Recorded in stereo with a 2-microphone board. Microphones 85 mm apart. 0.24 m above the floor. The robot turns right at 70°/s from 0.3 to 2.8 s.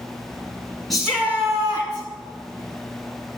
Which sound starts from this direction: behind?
A shout, at 0.9 s.